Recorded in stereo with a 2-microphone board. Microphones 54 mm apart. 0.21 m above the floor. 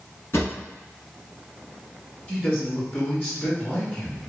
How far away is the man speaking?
About 1.9 m.